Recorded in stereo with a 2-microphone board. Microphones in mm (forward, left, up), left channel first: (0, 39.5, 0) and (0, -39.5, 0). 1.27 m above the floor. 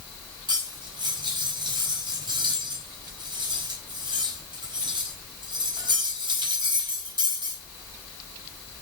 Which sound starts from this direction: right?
Cutlery clinking, at 0.5 s.